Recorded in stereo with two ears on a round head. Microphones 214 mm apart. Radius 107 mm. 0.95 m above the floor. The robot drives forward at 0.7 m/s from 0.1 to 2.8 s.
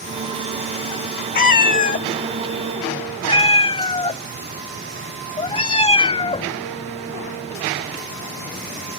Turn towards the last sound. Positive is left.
turn(degrees=25)  # may be behind; listen again after turning